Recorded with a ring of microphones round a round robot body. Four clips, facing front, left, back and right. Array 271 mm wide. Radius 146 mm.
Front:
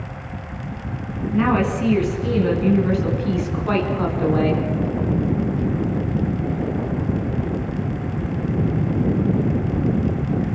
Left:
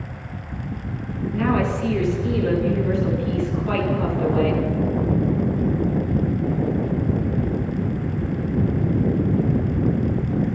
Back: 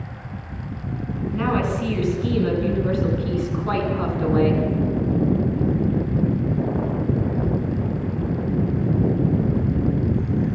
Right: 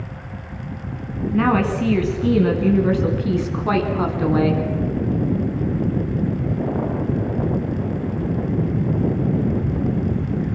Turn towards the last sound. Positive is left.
turn(degrees=-90)